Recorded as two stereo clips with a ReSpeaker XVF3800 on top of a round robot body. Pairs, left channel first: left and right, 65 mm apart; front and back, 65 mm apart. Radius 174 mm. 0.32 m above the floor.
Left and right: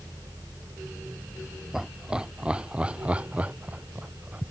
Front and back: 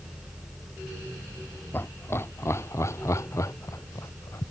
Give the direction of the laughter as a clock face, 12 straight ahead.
12 o'clock.